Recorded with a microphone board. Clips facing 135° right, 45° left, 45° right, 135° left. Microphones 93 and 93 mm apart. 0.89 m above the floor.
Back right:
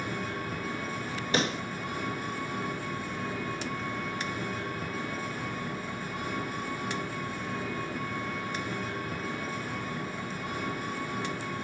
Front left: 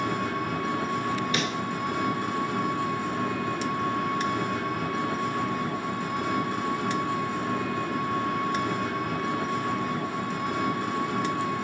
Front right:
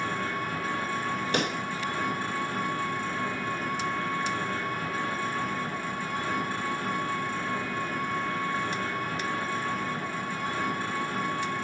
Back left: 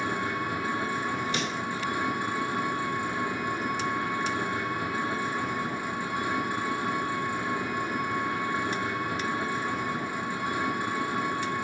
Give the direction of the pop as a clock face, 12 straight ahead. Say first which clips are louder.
Front left 1 dB, front right 3 dB; 3 o'clock.